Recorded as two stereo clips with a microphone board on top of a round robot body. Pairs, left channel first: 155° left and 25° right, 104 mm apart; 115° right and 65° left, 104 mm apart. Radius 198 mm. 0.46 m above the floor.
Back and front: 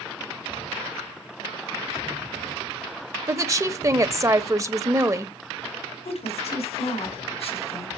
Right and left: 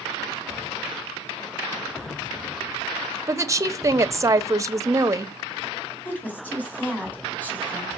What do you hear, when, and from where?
3.3 s a woman speaking: 25° left, 1.0 m
6.0 s a woman speaking: 175° left, 3 m